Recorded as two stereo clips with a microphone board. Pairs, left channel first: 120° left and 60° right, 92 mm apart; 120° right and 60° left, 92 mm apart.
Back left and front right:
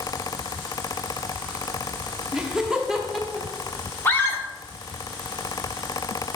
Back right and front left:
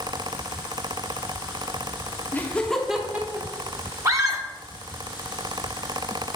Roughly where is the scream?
Left.